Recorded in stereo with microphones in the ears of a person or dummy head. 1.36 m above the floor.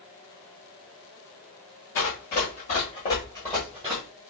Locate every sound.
1.9 s running footsteps: 45° left (ahead or behind), 1.9 m; by 4.0 s 15° right (ahead or behind), 1.6 m